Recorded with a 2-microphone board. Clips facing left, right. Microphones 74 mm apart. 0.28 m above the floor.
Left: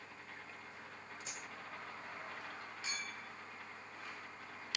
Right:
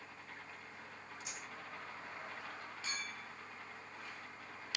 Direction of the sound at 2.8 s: 15° left (ahead or behind).